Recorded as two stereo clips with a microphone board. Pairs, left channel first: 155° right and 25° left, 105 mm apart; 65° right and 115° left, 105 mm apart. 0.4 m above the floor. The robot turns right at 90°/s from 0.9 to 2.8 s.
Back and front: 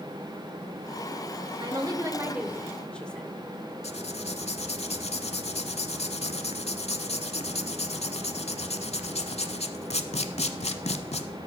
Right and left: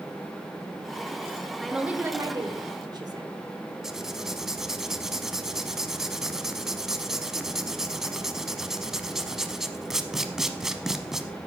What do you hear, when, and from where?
1.6 s a woman speaking: 15° left, 1.1 m; by 3.3 s 125° left, 1.1 m
3.8 s writing: 160° right, 0.7 m